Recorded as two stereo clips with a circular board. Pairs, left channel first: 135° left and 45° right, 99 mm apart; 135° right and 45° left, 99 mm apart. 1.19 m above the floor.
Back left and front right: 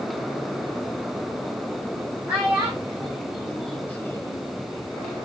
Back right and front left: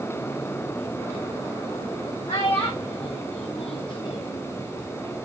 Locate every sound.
2.3 s a child speaking: 110° right, 1.4 m; by 4.4 s straight behind, 0.6 m